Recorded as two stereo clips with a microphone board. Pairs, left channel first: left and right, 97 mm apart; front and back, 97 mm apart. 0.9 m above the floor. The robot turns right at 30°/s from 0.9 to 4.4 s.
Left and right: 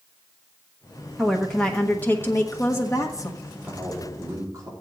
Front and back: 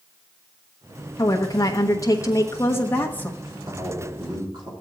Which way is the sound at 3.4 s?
170° right.